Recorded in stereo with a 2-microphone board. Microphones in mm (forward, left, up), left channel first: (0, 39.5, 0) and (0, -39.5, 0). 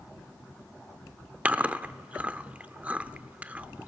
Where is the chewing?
20° right (ahead or behind), 0.6 m.